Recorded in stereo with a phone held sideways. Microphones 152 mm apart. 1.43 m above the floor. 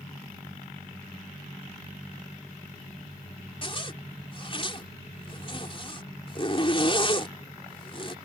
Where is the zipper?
35° left (ahead or behind).